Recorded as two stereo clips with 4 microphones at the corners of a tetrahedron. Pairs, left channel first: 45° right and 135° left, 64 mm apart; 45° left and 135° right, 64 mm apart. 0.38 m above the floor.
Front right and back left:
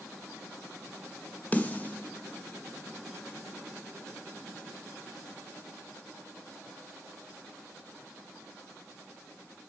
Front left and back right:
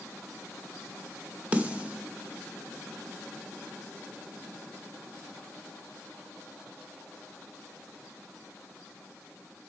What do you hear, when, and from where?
1.5 s a snare drum: 85° right, 0.8 m